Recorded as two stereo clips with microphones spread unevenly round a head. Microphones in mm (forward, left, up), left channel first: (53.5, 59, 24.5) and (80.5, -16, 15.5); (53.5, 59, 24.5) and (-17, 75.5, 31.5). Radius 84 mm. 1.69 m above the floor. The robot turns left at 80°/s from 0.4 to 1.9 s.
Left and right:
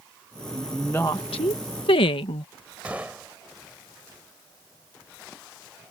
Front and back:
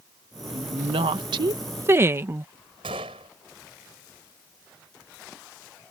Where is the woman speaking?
140° right; by 2.5 s 110° left.